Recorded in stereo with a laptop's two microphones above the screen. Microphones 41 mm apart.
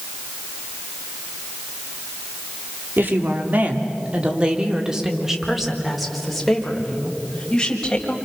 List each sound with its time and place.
3.0 s a woman speaking: 55° right (ahead or behind), 3.5 m; by 8.2 s 15° left (ahead or behind), 6.5 m